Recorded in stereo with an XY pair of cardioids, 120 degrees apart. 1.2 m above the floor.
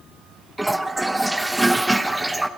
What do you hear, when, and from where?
0.6 s a toilet flushing: 10° right, 1.0 m